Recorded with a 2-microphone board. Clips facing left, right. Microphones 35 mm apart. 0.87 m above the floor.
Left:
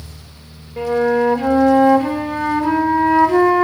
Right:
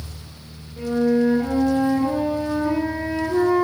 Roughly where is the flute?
Left.